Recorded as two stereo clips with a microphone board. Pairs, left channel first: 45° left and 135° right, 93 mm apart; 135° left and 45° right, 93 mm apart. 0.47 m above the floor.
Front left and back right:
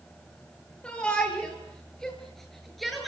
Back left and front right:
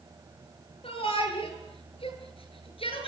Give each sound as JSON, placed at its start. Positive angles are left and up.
{"t": 0.8, "sound": "a shout", "azimuth_deg": 125, "distance_m": 9.0}